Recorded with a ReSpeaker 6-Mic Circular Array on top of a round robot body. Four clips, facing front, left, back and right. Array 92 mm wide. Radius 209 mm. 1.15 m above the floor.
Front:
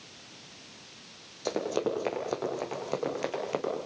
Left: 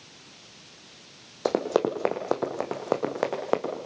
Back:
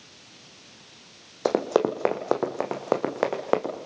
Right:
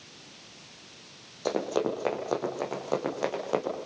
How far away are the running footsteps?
About 4 m.